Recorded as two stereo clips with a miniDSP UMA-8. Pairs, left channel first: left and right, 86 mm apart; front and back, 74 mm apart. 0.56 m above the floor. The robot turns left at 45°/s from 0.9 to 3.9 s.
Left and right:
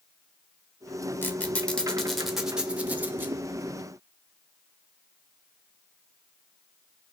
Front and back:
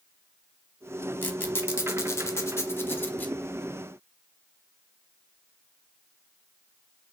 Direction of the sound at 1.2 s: 45° left.